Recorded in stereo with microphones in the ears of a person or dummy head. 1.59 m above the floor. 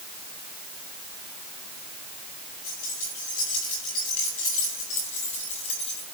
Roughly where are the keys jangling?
Left.